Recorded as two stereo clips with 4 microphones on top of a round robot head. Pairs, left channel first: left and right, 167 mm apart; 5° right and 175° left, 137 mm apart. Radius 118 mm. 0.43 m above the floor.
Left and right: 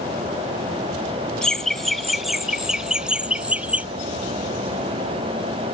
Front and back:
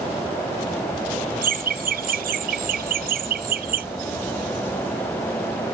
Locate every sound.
1.4 s laughter: 175° left; by 3.9 s 170° right